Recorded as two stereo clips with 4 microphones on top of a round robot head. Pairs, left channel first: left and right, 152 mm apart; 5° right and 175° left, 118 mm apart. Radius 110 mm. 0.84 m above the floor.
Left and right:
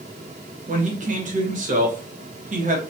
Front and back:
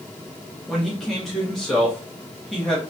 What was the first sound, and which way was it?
A man speaking, 90° right.